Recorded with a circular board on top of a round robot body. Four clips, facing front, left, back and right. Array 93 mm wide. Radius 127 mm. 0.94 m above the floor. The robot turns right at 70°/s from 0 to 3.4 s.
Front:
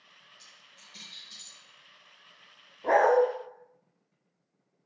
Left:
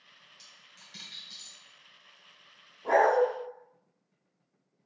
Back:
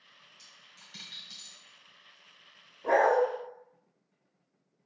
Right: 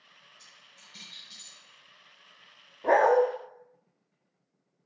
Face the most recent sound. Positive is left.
turn(degrees=-25)